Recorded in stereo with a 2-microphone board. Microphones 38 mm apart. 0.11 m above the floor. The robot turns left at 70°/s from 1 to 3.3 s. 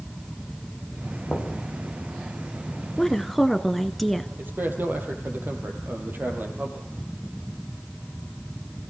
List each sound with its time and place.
1.3 s knocking: 65° left (ahead or behind), 5.5 m; by 1.5 s 50° left (ahead or behind), 5.5 m
3.0 s a woman speaking: 15° left (ahead or behind), 1.4 m; by 4.3 s 5° left (ahead or behind), 1.4 m
4.4 s a man speaking: 60° right (ahead or behind), 4 m